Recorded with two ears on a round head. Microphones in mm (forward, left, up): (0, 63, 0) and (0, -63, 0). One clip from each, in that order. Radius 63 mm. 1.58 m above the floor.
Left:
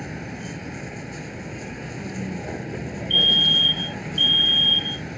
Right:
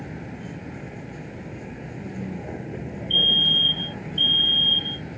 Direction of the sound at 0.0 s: 70° left (ahead or behind).